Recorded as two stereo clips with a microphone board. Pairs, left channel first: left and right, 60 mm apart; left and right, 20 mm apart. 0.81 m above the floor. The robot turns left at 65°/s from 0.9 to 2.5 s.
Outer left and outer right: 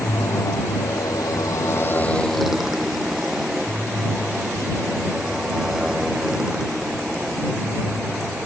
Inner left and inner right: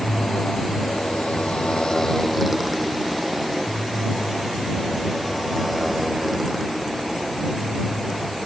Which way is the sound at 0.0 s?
75° left (ahead or behind).